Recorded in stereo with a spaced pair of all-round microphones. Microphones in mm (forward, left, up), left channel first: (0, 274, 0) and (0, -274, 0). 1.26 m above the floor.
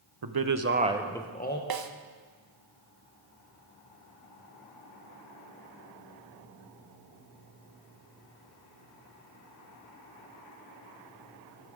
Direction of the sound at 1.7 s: 45° right (ahead or behind).